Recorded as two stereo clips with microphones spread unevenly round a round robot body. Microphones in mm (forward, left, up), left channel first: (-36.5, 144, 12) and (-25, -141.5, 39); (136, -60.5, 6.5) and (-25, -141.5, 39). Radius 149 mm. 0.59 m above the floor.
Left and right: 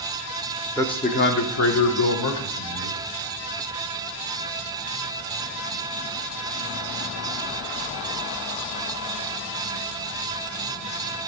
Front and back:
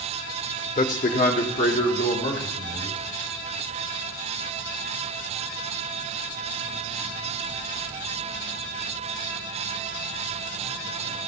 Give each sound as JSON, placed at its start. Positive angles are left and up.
{"t": 0.8, "sound": "a man speaking", "azimuth_deg": 15, "distance_m": 0.9}